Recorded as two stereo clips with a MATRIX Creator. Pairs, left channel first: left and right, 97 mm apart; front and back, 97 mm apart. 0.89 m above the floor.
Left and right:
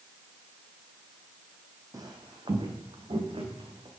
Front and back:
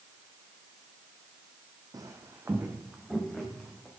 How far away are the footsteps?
About 1.9 m.